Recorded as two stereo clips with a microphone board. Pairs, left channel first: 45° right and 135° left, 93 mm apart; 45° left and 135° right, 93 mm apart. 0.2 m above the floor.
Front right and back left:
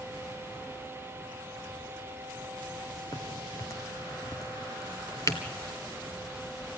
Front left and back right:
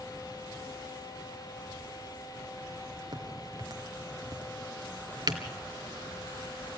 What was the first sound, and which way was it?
A crack, 95° right.